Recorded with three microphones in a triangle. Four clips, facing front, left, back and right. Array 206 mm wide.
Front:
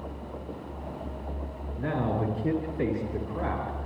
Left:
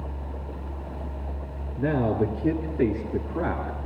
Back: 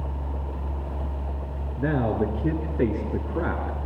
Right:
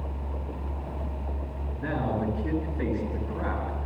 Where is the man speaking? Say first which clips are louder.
Left 5 dB, back 4 dB; 140° left, 5.5 m; by 3.9 s 150° left, 5.5 m.